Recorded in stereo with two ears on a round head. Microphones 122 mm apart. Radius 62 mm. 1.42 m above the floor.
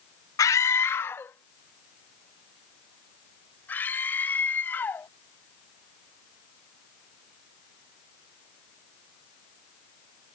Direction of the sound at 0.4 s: 25° left (ahead or behind).